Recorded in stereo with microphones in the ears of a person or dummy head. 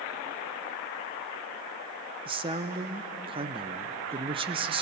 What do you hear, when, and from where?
2.2 s a man speaking: 25° right (ahead or behind), 0.6 m